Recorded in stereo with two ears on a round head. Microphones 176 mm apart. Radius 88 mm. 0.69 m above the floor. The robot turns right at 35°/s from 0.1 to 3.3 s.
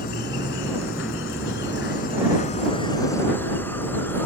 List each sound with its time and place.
0.0 s an insect: 55° left; by 4.3 s 170° left